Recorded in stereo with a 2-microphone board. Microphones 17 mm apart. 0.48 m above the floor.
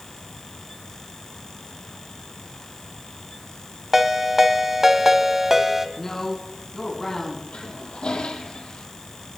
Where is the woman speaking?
25° left (ahead or behind), 4 m.